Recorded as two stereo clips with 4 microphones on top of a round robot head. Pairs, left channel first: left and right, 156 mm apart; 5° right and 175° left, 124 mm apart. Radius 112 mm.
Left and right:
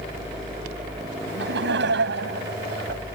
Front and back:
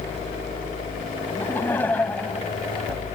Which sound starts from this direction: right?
Laughter, at 1.3 s.